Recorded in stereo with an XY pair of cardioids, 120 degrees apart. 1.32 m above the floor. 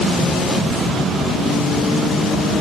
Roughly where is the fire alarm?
No fire alarm in this recording.